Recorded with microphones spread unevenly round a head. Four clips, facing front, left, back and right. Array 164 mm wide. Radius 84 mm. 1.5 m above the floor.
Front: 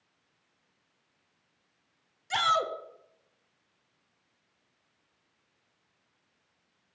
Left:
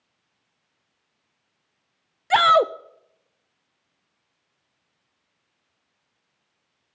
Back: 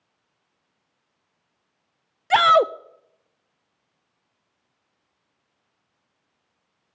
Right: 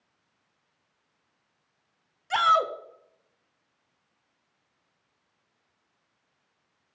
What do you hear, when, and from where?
2.3 s a shout: 140° left, 0.5 m